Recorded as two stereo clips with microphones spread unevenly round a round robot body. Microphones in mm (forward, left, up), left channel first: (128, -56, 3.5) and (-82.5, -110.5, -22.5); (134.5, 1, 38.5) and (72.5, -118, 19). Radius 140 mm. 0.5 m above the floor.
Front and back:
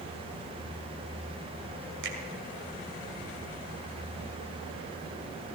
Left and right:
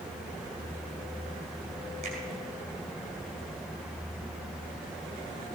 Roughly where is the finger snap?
Behind.